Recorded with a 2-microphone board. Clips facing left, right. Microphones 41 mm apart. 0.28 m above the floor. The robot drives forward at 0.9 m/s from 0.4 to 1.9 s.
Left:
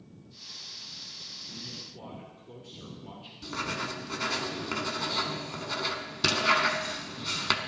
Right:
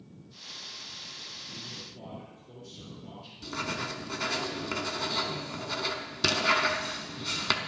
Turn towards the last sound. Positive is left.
turn(degrees=5)  # may be behind; listen again after turning